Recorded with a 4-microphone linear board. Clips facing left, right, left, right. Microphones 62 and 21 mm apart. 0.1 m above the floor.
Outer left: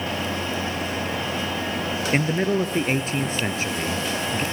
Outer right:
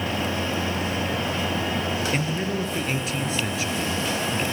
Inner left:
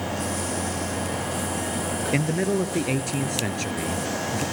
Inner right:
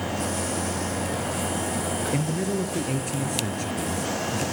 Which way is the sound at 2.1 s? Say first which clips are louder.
Outer left 4 dB, inner left 6 dB; 40° left (ahead or behind).